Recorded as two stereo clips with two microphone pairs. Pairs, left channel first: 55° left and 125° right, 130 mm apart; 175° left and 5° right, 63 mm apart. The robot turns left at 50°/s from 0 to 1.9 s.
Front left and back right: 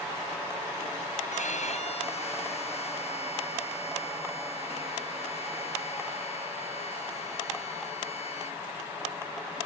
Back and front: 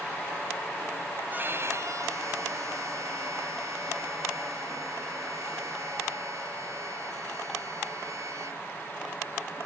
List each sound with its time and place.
1.3 s a violin: 55° left; by 8.6 s 25° left